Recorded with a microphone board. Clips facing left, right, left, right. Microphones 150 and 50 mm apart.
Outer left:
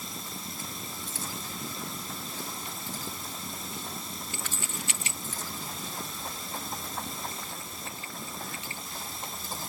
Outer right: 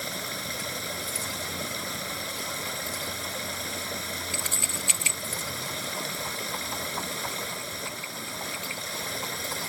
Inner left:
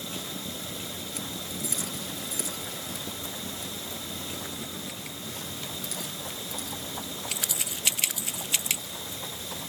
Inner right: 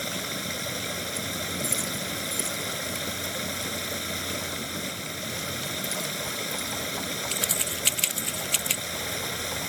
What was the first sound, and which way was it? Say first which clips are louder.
Running water: outer right 5 dB, inner right 5 dB; 75° right (ahead or behind).